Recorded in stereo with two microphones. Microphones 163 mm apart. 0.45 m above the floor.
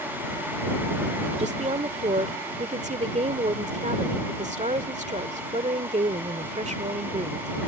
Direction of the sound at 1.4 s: 45° right (ahead or behind).